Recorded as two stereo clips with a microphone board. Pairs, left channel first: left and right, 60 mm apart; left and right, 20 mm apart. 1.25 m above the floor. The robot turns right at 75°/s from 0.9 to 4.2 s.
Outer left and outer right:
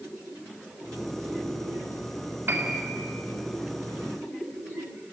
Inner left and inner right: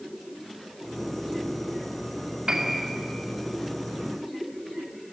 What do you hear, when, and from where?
2.5 s a piano: 45° right, 2.5 m; by 2.9 s 10° right, 2.5 m